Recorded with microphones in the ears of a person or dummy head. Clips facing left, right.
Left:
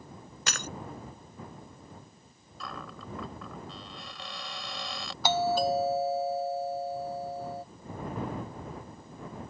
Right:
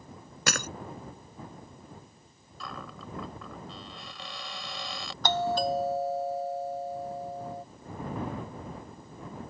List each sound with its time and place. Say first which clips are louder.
0.5 s breaking glass: right 6 dB; 55° right (ahead or behind)
2.6 s a cupboard door: even; centre (ahead or behind)
5.2 s a doorbell: left 1 dB; 5° left (ahead or behind)